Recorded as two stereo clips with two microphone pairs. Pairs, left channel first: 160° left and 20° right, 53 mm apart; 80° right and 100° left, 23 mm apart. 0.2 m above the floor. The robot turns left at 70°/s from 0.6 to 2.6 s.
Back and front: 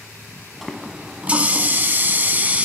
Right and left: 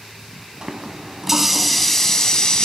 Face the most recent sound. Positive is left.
turn(degrees=-60)